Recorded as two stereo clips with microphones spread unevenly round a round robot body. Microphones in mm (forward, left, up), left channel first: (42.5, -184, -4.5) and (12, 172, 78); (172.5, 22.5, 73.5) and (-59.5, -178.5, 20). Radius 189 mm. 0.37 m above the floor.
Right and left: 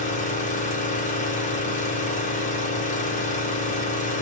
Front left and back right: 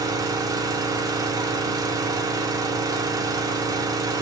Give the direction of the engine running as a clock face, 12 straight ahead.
3 o'clock.